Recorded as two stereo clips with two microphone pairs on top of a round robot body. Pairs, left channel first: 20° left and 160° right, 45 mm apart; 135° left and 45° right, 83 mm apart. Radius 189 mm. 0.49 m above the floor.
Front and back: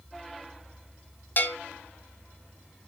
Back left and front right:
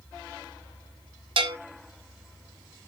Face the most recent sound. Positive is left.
turn(degrees=-30)